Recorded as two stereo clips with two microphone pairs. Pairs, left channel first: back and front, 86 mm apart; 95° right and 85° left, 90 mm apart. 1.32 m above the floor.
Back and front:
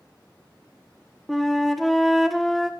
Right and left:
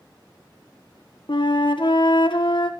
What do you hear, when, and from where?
1.3 s a flute: 95° right, 1.1 m